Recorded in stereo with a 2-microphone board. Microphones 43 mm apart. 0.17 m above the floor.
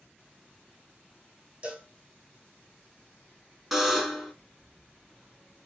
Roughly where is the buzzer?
Centre.